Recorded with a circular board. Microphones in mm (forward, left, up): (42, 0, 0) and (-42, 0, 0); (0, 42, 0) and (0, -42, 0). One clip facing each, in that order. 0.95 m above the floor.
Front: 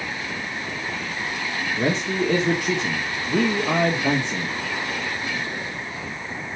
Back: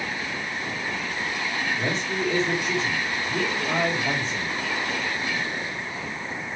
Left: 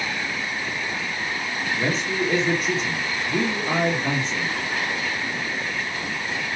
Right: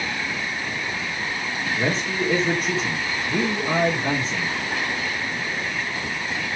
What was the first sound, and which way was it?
A man speaking, straight ahead.